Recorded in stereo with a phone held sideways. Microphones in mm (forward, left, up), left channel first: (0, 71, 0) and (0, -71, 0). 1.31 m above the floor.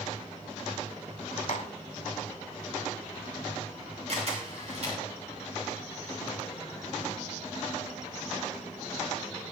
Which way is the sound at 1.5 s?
55° left (ahead or behind).